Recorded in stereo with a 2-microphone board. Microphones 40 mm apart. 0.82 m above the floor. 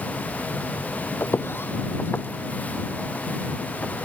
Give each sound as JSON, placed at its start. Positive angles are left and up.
{"t": 1.2, "sound": "footsteps", "side_deg": 70}